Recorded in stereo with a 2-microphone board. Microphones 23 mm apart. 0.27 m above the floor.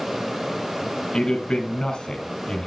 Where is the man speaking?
40° left (ahead or behind), 2.5 m.